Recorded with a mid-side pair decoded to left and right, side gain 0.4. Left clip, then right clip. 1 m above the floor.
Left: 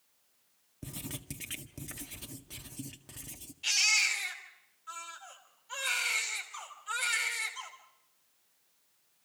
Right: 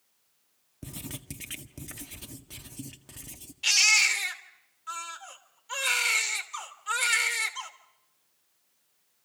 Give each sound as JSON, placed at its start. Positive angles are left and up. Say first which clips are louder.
{"t": 0.8, "sound": "writing", "louder": "right 2 dB", "azimuth_deg": -15, "distance_m": 1.8}
{"t": 3.6, "sound": "a baby crying", "louder": "right 6 dB", "azimuth_deg": -60, "distance_m": 3.0}